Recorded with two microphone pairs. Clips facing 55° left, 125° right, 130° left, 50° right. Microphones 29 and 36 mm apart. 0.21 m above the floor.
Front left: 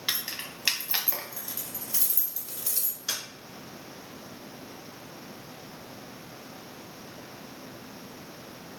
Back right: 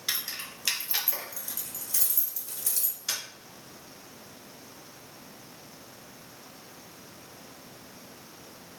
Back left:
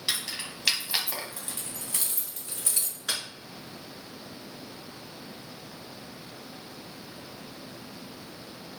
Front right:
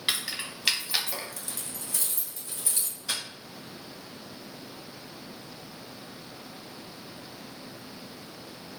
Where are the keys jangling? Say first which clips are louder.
Front left 1 dB, front right 2 dB; straight ahead, 1.0 m; by 3.2 s 135° left, 1.7 m.